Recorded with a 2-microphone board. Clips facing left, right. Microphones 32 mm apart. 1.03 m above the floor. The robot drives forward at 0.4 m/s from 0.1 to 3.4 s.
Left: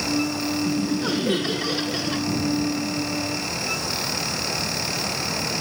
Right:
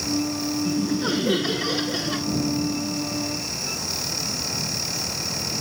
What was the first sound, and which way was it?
Laughter, 5° right (ahead or behind).